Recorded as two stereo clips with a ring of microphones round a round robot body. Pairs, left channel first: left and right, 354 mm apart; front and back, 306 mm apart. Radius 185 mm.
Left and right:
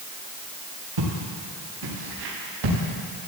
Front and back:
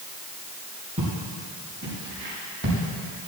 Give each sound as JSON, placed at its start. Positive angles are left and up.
{"t": 1.0, "sound": "footsteps", "azimuth_deg": -105, "distance_m": 6.0}